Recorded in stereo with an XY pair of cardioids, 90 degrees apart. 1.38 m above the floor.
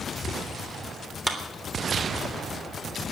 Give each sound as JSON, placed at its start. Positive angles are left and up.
{"t": 1.3, "sound": "a clap", "azimuth_deg": -10, "distance_m": 3.5}